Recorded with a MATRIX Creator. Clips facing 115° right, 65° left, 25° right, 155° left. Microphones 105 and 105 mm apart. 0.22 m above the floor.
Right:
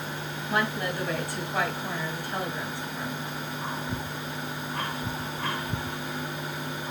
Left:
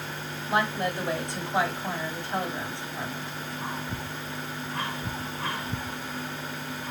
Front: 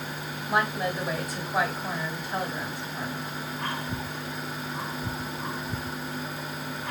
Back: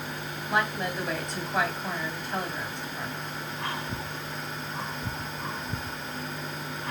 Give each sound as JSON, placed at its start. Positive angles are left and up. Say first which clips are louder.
{"t": 0.5, "sound": "a woman speaking", "louder": "left 2 dB, front 2 dB", "azimuth_deg": 55, "distance_m": 1.5}